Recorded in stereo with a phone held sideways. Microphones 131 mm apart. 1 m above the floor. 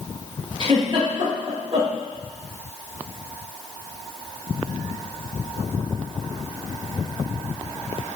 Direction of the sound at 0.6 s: 40° right (ahead or behind).